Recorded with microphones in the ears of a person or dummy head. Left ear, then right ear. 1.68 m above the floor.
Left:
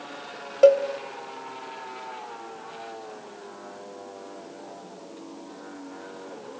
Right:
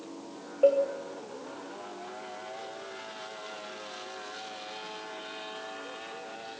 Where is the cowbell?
70° left (ahead or behind), 1.1 m.